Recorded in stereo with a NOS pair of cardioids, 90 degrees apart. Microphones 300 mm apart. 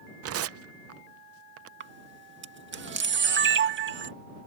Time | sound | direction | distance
0.2 | tearing paper | 55° right | ?
1.8 | a camera shutter | 40° right | ?